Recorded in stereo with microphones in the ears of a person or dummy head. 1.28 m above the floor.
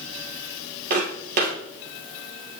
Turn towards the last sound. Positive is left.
turn(degrees=-50)  # may be behind; listen again after turning